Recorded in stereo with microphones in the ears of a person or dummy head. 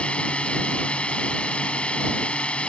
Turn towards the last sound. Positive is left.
turn(degrees=5)  # may be behind; listen again after turning